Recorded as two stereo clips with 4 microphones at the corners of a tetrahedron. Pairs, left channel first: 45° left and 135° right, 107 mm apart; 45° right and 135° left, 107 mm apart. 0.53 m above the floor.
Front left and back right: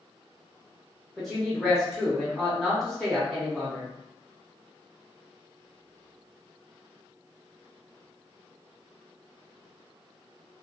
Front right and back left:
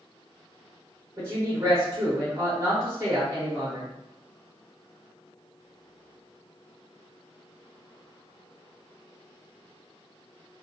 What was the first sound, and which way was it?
A woman speaking, 130° left.